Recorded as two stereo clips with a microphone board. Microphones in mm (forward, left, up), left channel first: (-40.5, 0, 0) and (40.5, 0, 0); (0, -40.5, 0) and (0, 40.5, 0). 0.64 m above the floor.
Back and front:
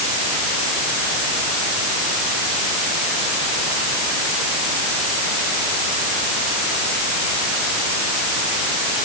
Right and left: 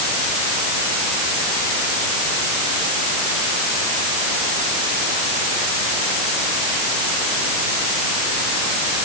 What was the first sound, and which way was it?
Only background noise.